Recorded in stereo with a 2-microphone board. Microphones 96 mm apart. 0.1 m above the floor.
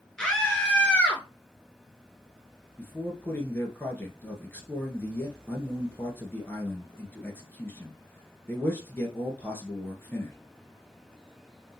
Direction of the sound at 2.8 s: 20° left (ahead or behind).